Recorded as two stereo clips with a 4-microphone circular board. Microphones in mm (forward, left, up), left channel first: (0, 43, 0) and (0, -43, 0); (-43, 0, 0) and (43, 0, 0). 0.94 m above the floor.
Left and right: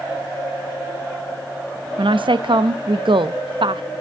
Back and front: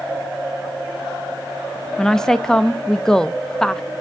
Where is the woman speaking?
95° right, 0.7 m.